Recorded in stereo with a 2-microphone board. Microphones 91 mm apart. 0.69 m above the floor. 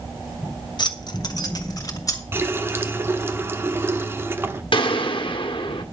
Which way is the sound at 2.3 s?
25° right (ahead or behind).